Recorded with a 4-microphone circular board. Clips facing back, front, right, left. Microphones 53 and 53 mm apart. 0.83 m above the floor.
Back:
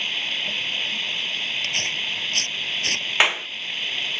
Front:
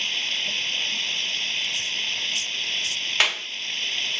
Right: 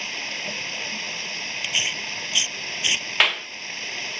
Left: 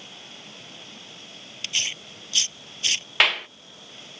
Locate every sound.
0.0 s running water: 100° right
1.6 s tearing paper: 150° right
3.2 s a clap: 175° right